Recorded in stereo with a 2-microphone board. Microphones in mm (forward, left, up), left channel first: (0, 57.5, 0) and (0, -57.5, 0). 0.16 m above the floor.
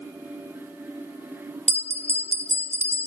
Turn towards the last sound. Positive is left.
turn(degrees=60)  # may be behind; listen again after turning